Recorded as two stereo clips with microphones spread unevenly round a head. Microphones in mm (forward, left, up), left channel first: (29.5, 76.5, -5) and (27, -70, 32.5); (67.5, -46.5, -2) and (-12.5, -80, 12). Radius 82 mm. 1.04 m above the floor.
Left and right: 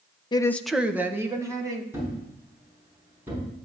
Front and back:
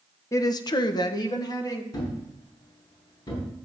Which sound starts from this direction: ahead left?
A woman speaking, at 0.3 s.